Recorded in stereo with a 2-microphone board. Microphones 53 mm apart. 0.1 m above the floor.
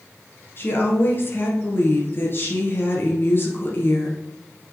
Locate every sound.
0.6 s a woman speaking: 45° left (ahead or behind), 2 m